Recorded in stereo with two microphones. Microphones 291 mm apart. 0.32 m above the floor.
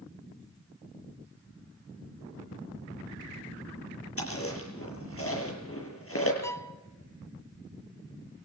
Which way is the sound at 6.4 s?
10° left (ahead or behind).